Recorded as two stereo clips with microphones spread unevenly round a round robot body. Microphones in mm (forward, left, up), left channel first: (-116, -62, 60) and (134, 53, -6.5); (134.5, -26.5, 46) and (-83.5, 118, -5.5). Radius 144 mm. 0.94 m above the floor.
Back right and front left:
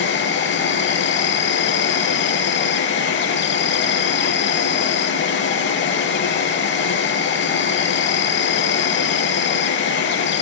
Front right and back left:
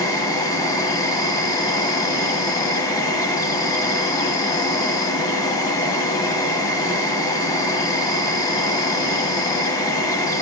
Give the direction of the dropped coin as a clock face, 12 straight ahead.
No dropped coin in this recording.